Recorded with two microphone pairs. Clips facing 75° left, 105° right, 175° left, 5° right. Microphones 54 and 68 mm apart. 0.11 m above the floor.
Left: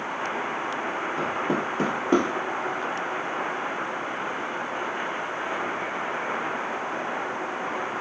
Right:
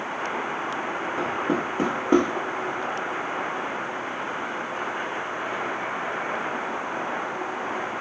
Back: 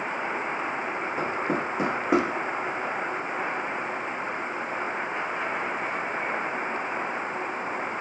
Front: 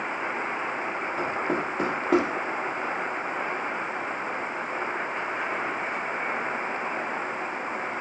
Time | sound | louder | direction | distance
1.2 | knocking | right 2 dB, even | 125° right | 1.0 m